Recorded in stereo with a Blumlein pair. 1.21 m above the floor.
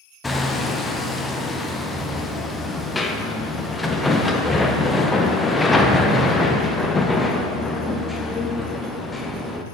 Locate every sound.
0.2 s hammering: 10° left, 0.6 m